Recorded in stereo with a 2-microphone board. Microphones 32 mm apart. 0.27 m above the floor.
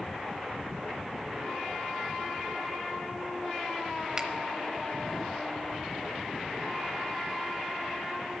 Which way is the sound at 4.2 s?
25° right (ahead or behind).